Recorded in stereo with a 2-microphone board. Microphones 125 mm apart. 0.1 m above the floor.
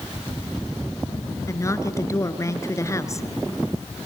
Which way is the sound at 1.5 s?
25° left (ahead or behind).